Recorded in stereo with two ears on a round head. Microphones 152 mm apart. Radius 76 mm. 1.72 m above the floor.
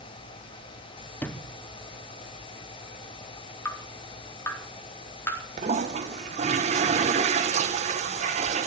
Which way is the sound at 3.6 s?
15° left (ahead or behind).